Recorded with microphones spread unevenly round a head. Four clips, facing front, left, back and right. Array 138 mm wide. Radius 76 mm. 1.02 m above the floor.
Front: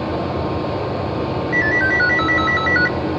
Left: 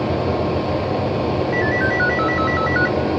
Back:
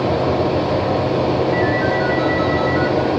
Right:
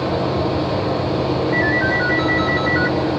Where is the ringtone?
40° left, 1.9 m.